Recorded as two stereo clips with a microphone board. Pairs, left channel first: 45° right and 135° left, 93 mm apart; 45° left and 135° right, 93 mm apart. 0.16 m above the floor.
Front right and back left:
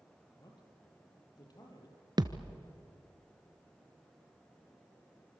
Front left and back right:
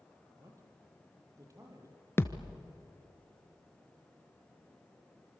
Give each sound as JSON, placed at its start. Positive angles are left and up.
{"t": 0.4, "sound": "a man speaking", "azimuth_deg": -85, "distance_m": 4.5}
{"t": 2.2, "sound": "a thud", "azimuth_deg": 105, "distance_m": 1.1}